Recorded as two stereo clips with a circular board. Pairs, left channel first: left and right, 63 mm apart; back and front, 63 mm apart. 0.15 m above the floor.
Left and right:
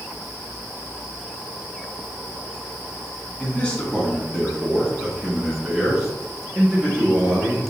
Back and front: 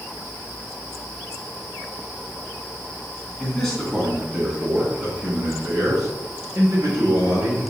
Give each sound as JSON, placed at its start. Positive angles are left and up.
{"t": 3.4, "sound": "a man speaking", "azimuth_deg": 120, "distance_m": 1.5}